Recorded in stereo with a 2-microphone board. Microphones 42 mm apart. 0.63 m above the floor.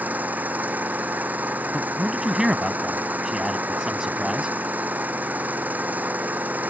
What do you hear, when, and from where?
0.0 s an engine running: 40° right (ahead or behind)
1.7 s a man speaking: 15° right (ahead or behind)